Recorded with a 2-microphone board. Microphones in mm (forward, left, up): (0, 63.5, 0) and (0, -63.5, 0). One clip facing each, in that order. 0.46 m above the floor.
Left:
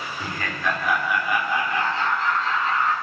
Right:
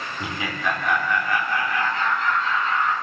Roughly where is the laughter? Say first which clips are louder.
Right 1 dB; centre.